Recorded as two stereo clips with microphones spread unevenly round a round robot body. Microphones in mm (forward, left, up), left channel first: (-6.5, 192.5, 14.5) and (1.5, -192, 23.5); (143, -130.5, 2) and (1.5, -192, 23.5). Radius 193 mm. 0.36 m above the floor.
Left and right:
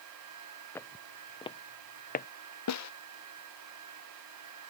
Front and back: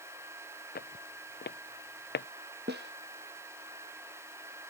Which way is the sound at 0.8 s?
5° left.